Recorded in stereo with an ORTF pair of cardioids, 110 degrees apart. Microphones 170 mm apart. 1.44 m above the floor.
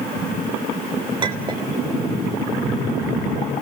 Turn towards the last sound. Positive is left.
turn(degrees=-25)